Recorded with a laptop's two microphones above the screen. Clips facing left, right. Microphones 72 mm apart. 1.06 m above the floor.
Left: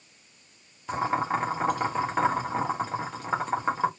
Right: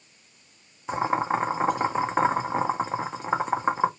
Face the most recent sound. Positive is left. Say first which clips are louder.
# right 2 dB
turn(degrees=-20)  # may be behind; listen again after turning